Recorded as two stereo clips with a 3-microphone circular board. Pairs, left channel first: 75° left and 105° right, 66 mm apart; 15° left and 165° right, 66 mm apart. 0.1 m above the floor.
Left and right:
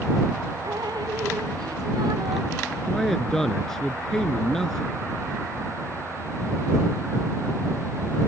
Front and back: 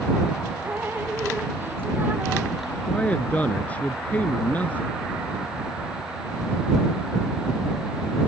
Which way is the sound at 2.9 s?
Straight ahead.